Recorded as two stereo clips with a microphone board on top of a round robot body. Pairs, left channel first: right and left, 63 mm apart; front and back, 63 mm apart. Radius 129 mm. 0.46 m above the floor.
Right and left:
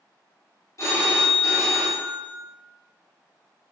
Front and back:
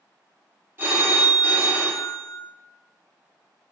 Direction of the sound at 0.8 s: 125° right.